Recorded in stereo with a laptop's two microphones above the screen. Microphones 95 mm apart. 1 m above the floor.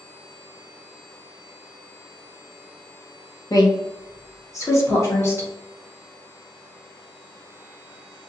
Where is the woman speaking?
40° left (ahead or behind), 1.1 m; by 5.5 s 30° left (ahead or behind), 1.9 m.